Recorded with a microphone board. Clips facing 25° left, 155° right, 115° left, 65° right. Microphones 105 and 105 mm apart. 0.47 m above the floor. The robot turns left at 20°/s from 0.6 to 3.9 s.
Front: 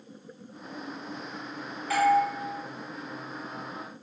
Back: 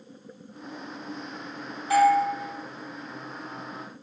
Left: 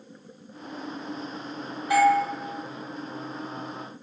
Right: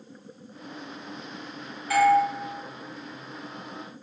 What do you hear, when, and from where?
1.9 s a doorbell: 170° left, 1.2 m; by 2.2 s 165° left, 1.2 m